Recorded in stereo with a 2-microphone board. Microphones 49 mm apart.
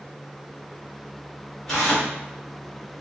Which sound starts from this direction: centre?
Tearing paper, at 1.7 s.